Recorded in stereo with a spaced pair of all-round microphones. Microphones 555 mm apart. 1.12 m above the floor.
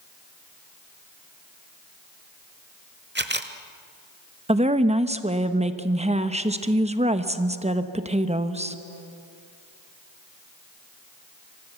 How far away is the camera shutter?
About 1.0 m.